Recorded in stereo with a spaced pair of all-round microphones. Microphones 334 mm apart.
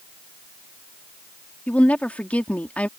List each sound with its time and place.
1.7 s a woman speaking: 5° left (ahead or behind)